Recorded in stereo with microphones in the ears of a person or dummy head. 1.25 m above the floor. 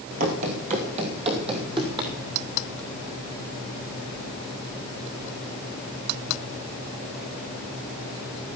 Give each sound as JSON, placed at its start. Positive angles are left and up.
{"t": 0.2, "sound": "running footsteps", "side_deg": -40, "distance_m": 1.7}